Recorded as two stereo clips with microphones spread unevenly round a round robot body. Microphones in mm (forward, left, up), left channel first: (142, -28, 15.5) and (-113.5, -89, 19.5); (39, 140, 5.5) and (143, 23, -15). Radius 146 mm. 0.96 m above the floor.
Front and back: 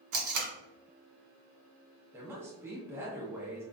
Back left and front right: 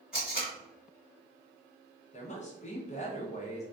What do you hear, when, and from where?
0.1 s tape being pulled: 130° right, 0.7 m
2.1 s a woman speaking: 115° left, 0.6 m